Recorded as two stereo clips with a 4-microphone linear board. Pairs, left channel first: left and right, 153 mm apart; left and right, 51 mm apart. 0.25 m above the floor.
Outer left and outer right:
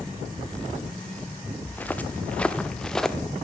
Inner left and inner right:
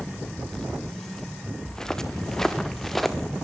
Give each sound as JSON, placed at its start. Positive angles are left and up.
{"t": 1.6, "sound": "footsteps", "side_deg": 10, "distance_m": 3.0}